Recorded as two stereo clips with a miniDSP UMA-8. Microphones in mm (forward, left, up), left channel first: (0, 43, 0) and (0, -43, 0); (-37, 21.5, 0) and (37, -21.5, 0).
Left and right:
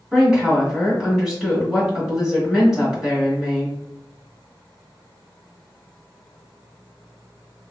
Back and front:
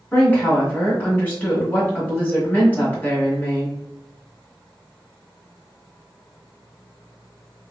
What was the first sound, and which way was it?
A woman speaking, 165° right.